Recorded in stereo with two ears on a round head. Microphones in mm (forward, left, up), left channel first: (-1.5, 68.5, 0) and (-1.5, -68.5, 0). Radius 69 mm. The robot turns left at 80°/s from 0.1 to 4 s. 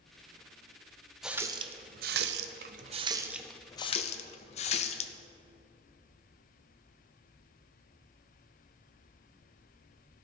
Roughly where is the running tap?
Centre.